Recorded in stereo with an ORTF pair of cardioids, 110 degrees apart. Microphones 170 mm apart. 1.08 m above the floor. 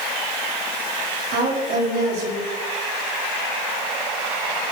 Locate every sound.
1.3 s a woman speaking: 70° right, 3 m